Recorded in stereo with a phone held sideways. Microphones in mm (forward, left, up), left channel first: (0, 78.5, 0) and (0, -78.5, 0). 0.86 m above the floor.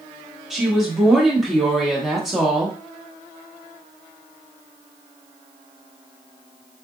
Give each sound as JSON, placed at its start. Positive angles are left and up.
{"t": 0.5, "sound": "a woman speaking", "side_deg": -5, "distance_m": 0.9}